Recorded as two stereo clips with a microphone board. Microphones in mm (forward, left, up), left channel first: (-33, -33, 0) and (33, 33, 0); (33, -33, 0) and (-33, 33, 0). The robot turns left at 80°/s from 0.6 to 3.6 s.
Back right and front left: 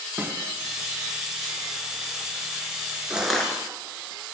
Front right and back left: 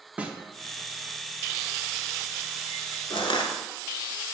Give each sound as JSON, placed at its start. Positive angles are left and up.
{"t": 0.2, "sound": "a snare drum", "azimuth_deg": 80, "distance_m": 1.0}
{"t": 3.1, "sound": "crushing", "azimuth_deg": -30, "distance_m": 1.5}